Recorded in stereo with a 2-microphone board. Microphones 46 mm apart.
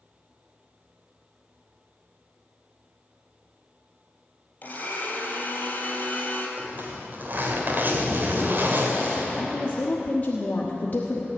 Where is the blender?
40° left (ahead or behind), 3 m.